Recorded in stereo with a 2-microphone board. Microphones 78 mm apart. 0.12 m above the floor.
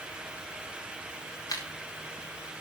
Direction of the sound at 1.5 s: 55° left (ahead or behind).